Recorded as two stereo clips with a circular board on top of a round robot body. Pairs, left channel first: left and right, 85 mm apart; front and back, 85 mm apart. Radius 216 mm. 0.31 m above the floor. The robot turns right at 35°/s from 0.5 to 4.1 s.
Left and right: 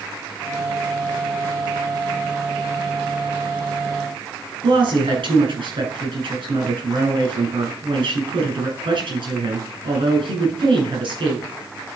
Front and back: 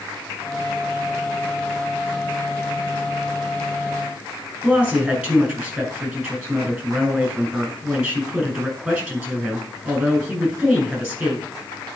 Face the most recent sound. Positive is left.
turn(degrees=-110)